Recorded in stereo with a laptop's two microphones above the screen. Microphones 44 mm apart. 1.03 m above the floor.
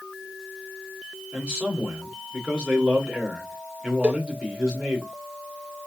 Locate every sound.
1.3 s a man speaking: 25° right (ahead or behind), 2 m
4.0 s a cowbell: 25° right (ahead or behind), 0.8 m